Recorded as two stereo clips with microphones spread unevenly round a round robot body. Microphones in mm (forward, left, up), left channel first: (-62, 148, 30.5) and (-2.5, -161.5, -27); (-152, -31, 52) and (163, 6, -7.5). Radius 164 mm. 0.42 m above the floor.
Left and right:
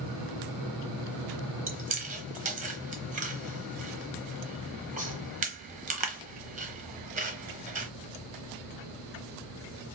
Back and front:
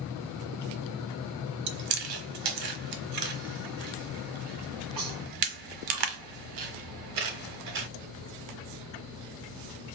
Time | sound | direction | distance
1.7 | chewing | 10° right | 0.8 m